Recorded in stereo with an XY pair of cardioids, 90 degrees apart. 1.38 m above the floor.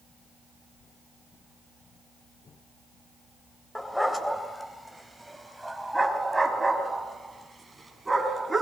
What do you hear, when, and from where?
3.8 s a dog barking: 10° left, 3 m; by 8.6 s 20° right, 6 m